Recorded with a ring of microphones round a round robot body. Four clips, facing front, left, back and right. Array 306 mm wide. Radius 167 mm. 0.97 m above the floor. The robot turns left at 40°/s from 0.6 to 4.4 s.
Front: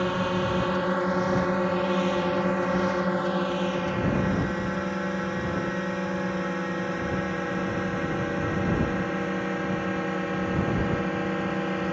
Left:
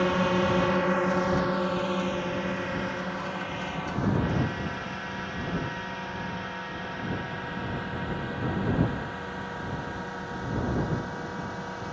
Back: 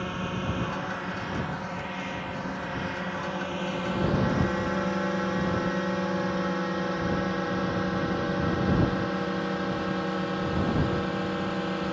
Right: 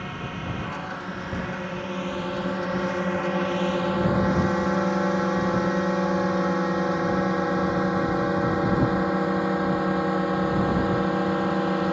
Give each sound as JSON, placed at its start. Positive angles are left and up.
{"t": 0.0, "sound": "a drone", "azimuth_deg": 55}